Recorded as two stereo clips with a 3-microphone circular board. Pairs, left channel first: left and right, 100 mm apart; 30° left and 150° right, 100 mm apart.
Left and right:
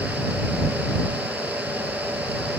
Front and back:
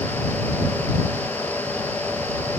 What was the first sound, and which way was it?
Only background noise.